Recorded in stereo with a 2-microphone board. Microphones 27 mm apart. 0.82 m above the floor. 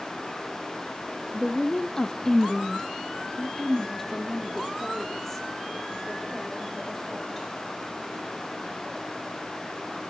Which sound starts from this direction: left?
A woman speaking, at 1.3 s.